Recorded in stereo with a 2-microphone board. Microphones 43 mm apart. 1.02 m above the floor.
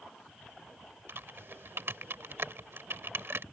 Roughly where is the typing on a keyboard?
Right.